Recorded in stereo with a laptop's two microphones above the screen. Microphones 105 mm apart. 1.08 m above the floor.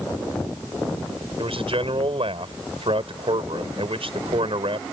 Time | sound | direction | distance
1.4 | a man speaking | 65° right (ahead or behind) | ?